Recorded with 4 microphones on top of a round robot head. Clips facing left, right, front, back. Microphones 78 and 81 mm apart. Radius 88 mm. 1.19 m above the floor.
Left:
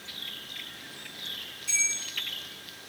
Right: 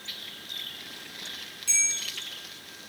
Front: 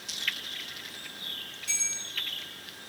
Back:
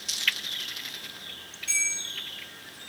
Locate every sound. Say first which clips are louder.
1.7 s a bell: even, back 9 dB; 75° right, 1.4 m